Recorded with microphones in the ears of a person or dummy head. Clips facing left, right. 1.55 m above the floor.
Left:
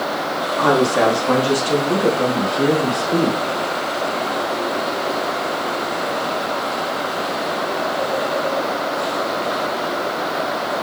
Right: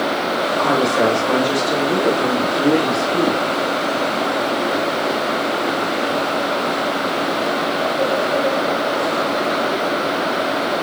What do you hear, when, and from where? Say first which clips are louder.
0.6 s a woman speaking: left 2 dB; 80° left, 4 m; by 3.4 s 55° left (ahead or behind), 2 m